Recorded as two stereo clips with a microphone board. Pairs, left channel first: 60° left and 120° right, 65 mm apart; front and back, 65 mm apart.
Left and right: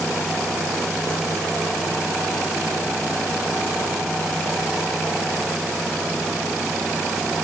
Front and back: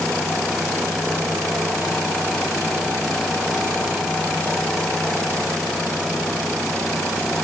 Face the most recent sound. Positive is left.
No sound to turn to.